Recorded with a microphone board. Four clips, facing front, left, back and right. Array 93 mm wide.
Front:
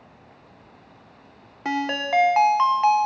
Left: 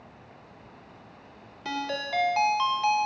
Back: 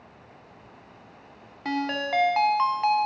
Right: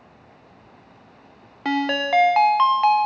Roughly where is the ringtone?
Right.